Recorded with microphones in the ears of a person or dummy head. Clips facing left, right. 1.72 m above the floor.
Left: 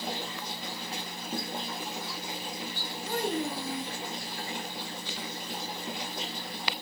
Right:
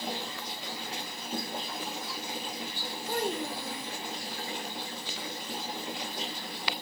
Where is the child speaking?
70° left (ahead or behind), 2.5 m.